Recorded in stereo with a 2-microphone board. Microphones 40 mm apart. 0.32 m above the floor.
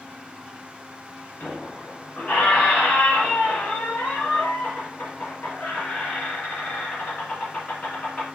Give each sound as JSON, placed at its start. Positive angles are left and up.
{"t": 1.4, "sound": "a squeak", "side_deg": 40, "distance_m": 2.0}